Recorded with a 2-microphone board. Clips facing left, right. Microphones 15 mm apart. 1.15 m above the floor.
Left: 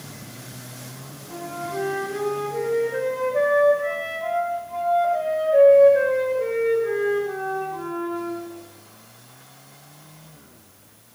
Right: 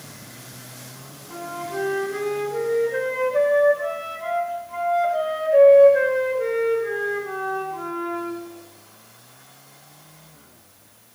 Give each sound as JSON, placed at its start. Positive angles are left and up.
{"t": 1.3, "sound": "a flute", "side_deg": -45, "distance_m": 2.5}